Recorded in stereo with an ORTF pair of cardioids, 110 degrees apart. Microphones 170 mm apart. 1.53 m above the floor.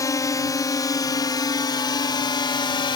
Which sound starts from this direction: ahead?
A drone, at 0.0 s.